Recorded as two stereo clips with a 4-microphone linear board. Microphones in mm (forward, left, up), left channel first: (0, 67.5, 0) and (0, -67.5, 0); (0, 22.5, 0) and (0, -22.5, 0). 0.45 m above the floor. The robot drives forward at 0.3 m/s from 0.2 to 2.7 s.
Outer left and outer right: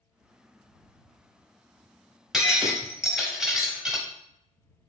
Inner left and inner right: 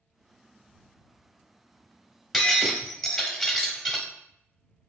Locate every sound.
2.3 s breaking glass: 5° right (ahead or behind), 0.8 m